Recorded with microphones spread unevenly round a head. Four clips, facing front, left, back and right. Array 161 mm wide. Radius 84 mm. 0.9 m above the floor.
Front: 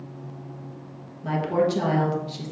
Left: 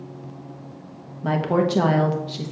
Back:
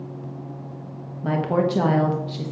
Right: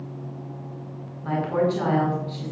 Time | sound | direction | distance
1.2 | a woman speaking | 105° left | 1.3 m